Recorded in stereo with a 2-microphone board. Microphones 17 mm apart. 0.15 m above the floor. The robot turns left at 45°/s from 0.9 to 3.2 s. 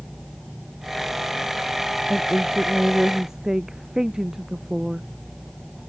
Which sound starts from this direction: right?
A woman speaking, at 2.1 s.